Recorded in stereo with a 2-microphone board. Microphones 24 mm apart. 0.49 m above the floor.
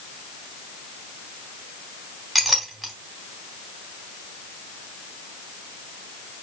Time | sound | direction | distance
2.4 | a clink | centre (ahead or behind) | 3 m